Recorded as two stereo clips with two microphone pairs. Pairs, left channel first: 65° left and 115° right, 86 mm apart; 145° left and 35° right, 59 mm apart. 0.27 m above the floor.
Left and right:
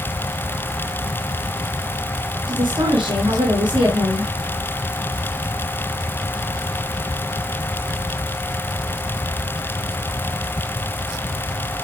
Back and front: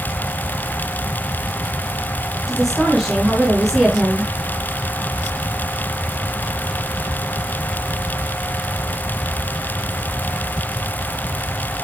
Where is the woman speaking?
120° right, 3 m.